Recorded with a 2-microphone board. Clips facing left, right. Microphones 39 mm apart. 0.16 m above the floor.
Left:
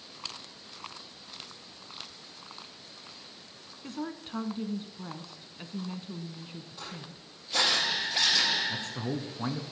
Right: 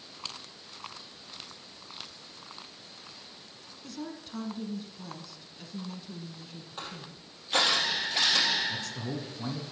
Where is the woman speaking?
35° left (ahead or behind), 1.3 m.